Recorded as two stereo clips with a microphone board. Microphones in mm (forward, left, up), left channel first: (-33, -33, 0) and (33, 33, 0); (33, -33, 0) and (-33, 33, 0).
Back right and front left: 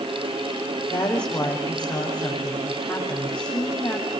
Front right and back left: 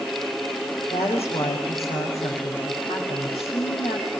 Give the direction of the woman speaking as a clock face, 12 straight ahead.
2 o'clock.